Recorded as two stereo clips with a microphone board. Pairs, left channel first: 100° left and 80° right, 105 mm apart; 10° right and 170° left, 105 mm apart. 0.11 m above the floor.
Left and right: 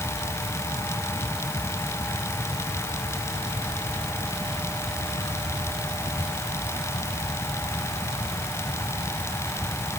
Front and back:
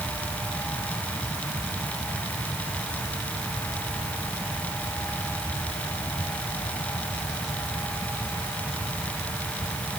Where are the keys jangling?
No keys jangling in this recording.